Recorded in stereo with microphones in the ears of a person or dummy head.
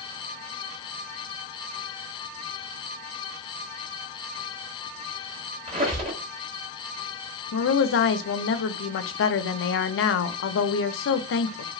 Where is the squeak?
30° right (ahead or behind), 1.4 m.